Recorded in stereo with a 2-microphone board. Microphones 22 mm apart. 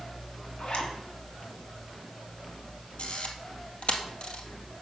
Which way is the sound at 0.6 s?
55° left (ahead or behind).